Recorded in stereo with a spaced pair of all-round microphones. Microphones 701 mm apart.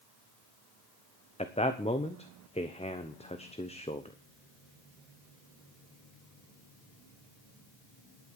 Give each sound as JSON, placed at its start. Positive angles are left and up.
{"t": 1.4, "sound": "a man speaking", "side_deg": 10, "distance_m": 1.0}